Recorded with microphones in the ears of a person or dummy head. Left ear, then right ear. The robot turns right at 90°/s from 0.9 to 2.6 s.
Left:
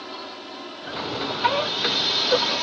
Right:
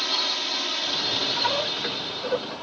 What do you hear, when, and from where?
0.0 s a drone: 75° right; by 2.6 s 75° left